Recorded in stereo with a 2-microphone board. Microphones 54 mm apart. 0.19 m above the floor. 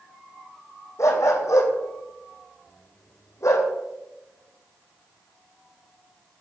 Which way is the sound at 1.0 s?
70° left (ahead or behind).